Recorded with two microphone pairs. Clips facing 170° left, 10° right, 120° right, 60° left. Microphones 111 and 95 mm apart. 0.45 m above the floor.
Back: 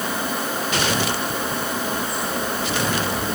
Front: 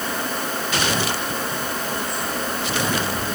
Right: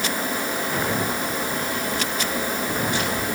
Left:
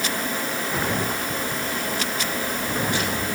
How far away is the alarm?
I don't hear an alarm.